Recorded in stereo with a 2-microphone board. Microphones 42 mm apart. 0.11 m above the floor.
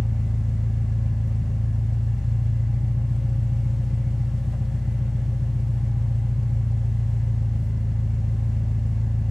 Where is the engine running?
25° right (ahead or behind), 3 m.